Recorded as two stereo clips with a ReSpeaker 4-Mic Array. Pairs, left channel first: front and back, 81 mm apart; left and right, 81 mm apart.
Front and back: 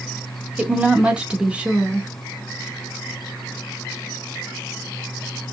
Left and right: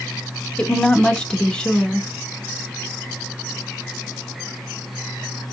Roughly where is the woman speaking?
Behind left.